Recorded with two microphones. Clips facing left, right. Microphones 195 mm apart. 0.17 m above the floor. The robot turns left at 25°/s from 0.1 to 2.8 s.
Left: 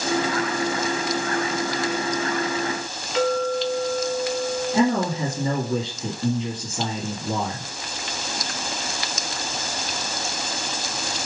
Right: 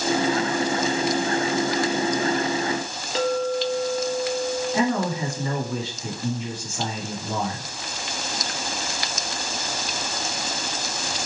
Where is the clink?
30° right (ahead or behind), 0.8 m.